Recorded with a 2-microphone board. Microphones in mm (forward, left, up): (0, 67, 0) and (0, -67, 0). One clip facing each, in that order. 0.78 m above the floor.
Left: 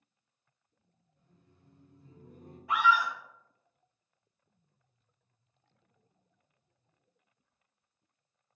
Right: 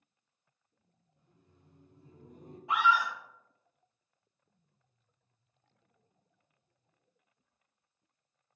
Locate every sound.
1.2 s laughter: 15° right (ahead or behind), 0.9 m
2.7 s a scream: 20° right (ahead or behind), 1.0 m